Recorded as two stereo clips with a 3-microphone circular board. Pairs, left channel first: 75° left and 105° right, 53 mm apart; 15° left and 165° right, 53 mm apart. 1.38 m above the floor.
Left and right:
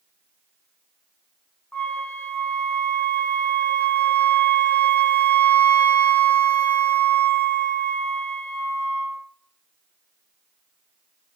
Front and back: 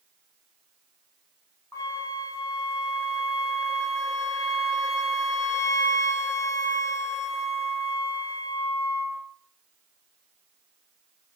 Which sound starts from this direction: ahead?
A flute, at 1.7 s.